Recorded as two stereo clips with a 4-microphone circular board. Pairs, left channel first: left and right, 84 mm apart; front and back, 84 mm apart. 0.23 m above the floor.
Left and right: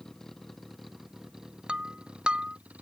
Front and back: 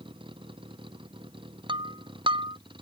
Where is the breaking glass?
170° right.